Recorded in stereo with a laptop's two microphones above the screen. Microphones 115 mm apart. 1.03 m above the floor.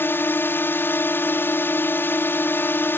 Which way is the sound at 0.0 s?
20° left (ahead or behind).